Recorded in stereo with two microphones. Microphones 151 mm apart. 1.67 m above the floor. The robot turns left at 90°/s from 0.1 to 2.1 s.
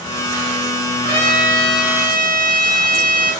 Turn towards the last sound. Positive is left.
turn(degrees=-70)